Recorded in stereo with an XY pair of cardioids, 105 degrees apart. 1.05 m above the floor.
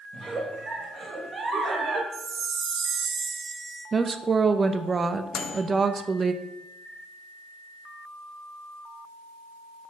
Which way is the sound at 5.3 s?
55° left.